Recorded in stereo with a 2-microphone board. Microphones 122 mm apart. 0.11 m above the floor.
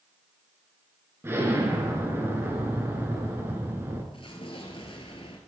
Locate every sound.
1.2 s an explosion: 20° right (ahead or behind), 1.8 m
4.1 s an explosion: 50° left (ahead or behind), 1.5 m